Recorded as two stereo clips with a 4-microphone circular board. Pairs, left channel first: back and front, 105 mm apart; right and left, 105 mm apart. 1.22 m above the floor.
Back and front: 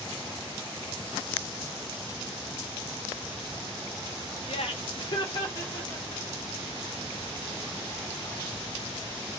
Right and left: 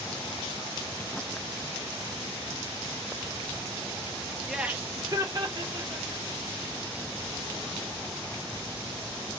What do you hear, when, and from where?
4.5 s laughter: straight behind, 0.7 m; by 6.2 s 125° left, 2 m